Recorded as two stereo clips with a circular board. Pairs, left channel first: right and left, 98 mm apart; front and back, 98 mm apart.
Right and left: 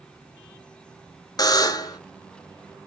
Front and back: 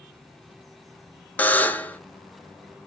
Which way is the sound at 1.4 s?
70° right.